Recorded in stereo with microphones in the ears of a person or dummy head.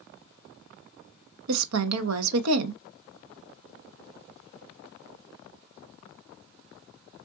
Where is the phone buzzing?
No phone buzzing in this recording.